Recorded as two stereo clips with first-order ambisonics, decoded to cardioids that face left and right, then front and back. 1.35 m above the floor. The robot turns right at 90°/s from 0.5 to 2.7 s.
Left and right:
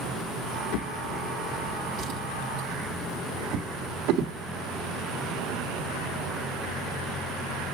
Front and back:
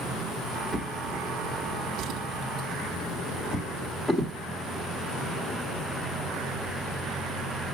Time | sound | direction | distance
0.7 | a drawer | 105° left | 1.5 m